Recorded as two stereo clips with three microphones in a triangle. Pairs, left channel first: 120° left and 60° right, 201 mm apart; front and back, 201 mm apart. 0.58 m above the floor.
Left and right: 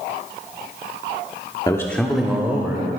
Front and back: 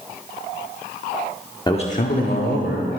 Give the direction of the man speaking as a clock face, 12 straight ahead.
10 o'clock.